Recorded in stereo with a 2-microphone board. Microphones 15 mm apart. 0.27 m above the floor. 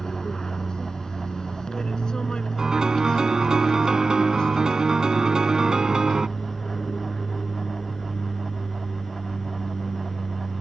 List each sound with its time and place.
0.0 s an aircraft: 50° left (ahead or behind); by 10.6 s 65° left (ahead or behind)
2.6 s a piano: 50° right (ahead or behind)